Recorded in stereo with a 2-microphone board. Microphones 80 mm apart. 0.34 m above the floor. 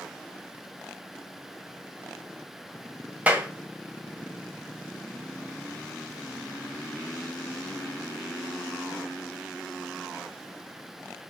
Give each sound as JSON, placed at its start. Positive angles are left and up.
{"t": 3.3, "sound": "a clap", "side_deg": -20, "distance_m": 1.5}